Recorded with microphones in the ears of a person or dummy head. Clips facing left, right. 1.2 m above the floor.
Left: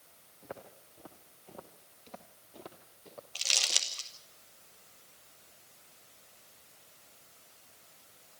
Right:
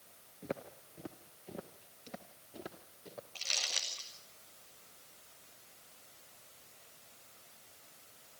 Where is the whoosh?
No whoosh in this recording.